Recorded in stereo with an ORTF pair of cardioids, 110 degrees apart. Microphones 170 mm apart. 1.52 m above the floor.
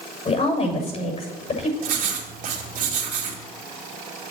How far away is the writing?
About 3 m.